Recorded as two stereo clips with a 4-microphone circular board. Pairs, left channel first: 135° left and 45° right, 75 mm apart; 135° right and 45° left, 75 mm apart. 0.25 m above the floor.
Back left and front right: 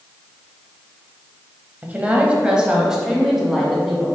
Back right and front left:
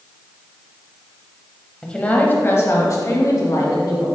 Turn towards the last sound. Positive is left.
turn(degrees=-135)